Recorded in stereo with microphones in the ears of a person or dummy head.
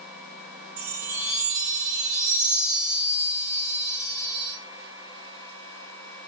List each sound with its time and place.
0.8 s a chime: 15° right (ahead or behind), 0.7 m